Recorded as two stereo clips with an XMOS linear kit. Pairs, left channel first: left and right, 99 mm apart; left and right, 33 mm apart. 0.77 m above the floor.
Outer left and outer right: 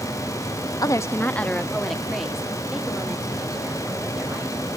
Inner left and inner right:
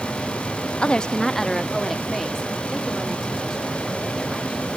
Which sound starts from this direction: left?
A woman speaking, at 0.8 s.